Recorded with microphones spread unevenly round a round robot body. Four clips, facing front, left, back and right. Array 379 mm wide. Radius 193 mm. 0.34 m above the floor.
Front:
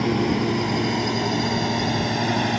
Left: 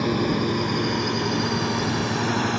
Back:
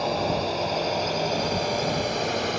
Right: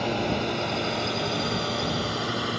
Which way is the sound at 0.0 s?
30° left.